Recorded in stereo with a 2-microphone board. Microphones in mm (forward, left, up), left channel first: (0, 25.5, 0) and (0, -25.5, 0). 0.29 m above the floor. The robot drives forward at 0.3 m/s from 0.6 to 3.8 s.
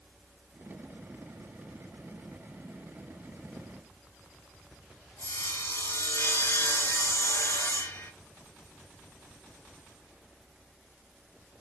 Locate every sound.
5.2 s sawing: 75° left (ahead or behind), 2.5 m